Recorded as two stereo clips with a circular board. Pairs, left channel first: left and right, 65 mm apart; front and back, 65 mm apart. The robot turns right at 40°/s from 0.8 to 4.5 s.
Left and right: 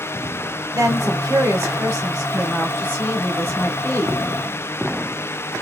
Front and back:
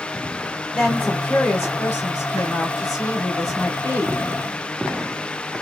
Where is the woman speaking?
75° right, 2 m; by 4.2 s 60° left, 2 m.